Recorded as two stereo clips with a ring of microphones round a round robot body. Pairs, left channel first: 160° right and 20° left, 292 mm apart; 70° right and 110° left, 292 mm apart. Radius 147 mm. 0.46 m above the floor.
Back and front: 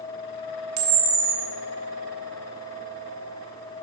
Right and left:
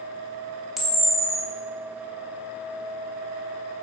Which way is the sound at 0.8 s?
25° left.